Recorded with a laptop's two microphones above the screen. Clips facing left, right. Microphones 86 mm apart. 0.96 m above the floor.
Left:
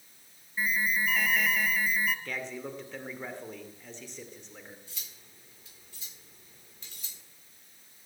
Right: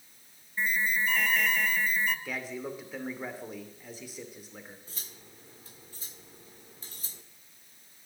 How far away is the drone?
I don't hear a drone.